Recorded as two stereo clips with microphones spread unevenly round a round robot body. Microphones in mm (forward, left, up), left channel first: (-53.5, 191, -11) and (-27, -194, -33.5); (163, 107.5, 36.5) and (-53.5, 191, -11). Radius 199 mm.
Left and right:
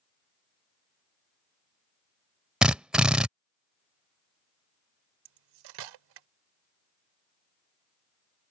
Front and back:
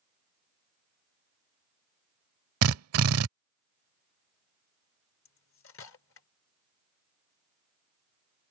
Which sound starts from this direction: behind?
A drill, at 2.6 s.